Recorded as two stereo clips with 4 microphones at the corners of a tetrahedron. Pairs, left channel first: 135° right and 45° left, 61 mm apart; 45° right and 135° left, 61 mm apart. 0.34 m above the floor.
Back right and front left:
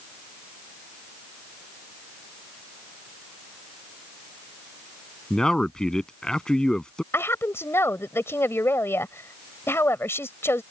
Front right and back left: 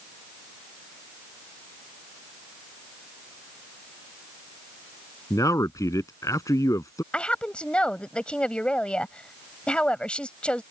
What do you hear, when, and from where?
5.3 s a man speaking: 55° right
7.1 s a woman speaking: 110° right